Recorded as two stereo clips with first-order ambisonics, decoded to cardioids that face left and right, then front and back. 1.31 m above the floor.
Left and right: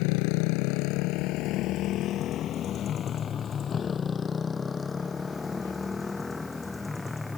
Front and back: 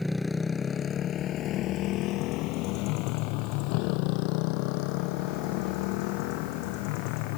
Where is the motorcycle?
90° left; by 7.4 s 5° left.